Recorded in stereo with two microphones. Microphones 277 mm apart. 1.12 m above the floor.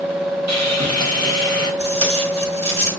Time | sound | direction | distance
0.5 | sawing | 70° right (ahead or behind) | 1.2 m
1.8 | tape being pulled | 20° right (ahead or behind) | 1.0 m